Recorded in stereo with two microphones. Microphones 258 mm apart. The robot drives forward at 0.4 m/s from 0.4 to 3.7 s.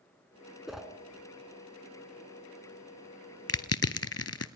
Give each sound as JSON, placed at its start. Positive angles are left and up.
{"t": 0.7, "sound": "a whoosh", "side_deg": 0, "distance_m": 1.3}
{"t": 3.5, "sound": "crushing", "side_deg": 65, "distance_m": 0.8}